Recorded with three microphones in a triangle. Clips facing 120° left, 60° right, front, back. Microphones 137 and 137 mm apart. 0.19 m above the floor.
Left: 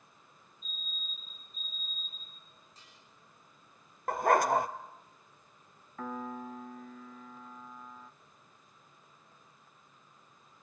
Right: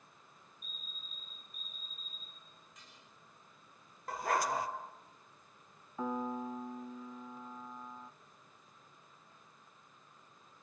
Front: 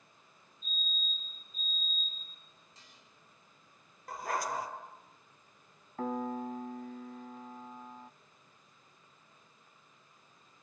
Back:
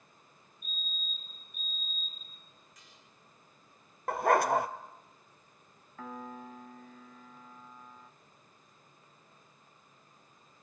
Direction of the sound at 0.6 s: 60° left.